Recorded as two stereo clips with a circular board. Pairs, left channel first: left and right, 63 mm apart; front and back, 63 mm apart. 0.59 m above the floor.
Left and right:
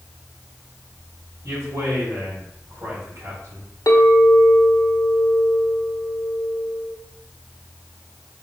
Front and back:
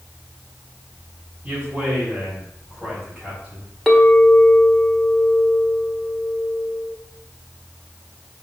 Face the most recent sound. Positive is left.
turn(degrees=90)